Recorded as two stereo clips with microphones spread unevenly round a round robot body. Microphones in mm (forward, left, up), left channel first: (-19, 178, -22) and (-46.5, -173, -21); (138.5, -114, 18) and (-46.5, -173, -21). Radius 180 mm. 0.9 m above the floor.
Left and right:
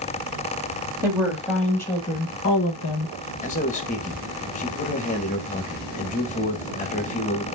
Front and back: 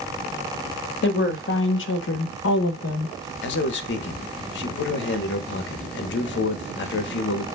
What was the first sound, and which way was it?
A woman speaking, 10° right.